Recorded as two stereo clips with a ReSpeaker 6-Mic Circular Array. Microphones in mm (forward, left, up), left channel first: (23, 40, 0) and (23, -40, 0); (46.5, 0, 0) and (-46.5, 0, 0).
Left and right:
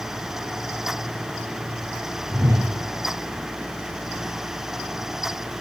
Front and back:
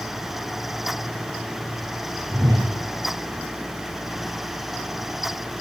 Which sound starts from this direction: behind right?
A whoosh, at 2.3 s.